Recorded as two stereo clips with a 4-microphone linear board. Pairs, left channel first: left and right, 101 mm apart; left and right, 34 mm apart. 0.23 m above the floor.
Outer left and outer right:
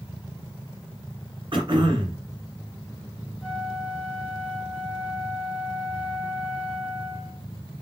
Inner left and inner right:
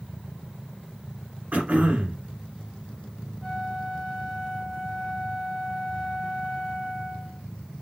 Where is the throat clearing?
55° right (ahead or behind), 1.6 m.